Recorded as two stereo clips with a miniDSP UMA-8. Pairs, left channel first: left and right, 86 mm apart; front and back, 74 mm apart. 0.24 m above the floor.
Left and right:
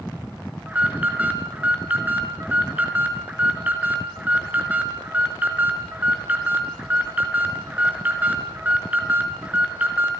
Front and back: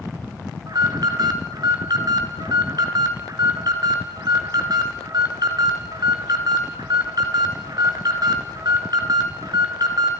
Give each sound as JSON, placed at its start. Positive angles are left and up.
{"t": 0.7, "sound": "an alarm", "azimuth_deg": -160, "distance_m": 2.5}